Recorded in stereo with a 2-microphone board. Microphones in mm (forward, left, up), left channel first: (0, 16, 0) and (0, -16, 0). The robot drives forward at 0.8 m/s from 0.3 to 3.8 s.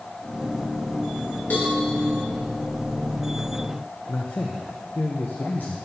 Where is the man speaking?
70° left (ahead or behind), 0.7 m.